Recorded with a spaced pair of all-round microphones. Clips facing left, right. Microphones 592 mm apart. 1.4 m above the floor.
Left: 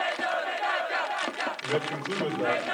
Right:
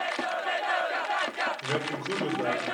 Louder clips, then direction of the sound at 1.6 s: Left 2 dB; 85° right.